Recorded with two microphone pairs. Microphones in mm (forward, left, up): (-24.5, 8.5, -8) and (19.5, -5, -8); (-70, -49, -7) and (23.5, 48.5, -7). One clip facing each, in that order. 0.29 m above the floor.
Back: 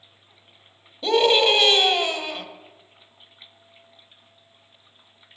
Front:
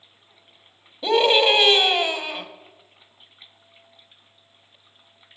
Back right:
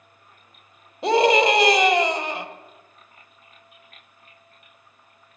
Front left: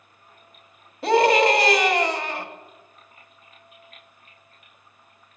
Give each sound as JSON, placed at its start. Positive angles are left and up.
{"t": 1.0, "sound": "a scream", "azimuth_deg": -90, "distance_m": 1.0}